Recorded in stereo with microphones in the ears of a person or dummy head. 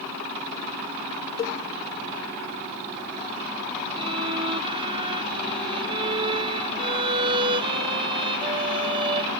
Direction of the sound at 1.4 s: 20° left (ahead or behind).